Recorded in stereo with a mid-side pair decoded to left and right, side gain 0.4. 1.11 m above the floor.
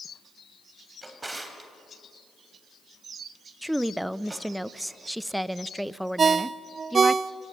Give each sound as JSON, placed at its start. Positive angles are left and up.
{"t": 1.0, "sound": "a drawer", "azimuth_deg": -20, "distance_m": 3.0}
{"t": 3.6, "sound": "a woman speaking", "azimuth_deg": -5, "distance_m": 0.6}
{"t": 6.2, "sound": "a ringtone", "azimuth_deg": -45, "distance_m": 0.5}